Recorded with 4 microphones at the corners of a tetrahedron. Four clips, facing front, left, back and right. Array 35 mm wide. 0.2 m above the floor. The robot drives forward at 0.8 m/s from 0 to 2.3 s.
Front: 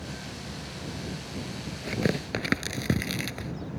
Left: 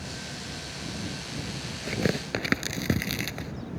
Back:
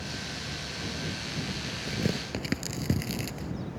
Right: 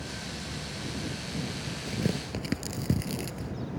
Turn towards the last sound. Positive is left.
turn(degrees=55)